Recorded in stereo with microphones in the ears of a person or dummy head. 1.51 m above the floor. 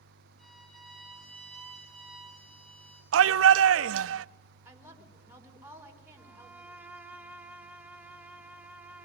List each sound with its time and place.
0.4 s a violin: 5° left (ahead or behind), 6 m
3.1 s a shout: 80° right, 0.6 m
4.7 s a woman speaking: 10° right (ahead or behind), 4.5 m
6.2 s a violin: 10° right (ahead or behind), 1.4 m